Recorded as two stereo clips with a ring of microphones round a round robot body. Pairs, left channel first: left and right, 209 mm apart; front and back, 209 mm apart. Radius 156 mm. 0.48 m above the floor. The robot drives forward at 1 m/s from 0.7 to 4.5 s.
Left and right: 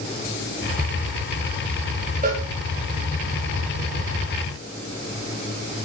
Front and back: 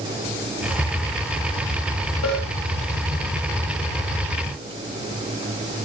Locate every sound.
2.2 s a cowbell: 40° right, 9 m